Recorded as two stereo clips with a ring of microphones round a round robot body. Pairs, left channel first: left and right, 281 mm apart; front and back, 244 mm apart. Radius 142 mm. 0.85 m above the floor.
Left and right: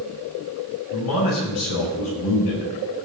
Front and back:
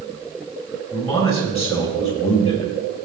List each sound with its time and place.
0.9 s a man speaking: 65° left, 7.5 m